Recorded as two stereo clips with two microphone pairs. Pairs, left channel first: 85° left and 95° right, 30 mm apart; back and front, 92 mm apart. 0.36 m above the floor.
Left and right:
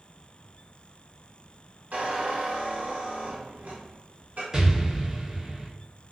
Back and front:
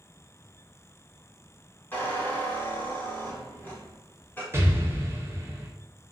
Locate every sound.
1.9 s a squeak: 115° right, 1.2 m
4.5 s an explosion: 35° right, 0.6 m